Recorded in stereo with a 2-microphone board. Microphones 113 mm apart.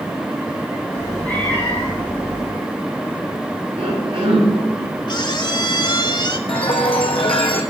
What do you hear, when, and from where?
0.9 s a cat meowing: 15° left (ahead or behind), 8.5 m; by 2.5 s 20° left (ahead or behind), 9 m
3.8 s a cough: 45° right (ahead or behind), 8 m
5.1 s a squeak: 40° left (ahead or behind), 0.9 m
6.5 s a chime: 50° left (ahead or behind), 2.0 m